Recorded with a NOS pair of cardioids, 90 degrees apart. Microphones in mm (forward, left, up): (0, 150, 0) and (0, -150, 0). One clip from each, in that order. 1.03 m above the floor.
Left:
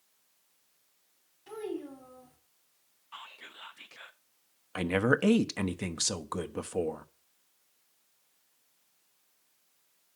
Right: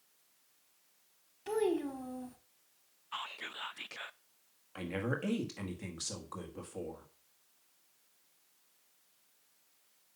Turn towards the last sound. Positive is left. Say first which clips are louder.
# left 10 dB
turn(degrees=65)